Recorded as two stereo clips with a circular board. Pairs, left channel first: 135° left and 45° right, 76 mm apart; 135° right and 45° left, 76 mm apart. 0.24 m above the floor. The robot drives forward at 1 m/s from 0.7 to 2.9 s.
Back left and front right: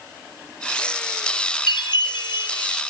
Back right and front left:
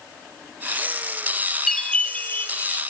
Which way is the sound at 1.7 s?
145° left.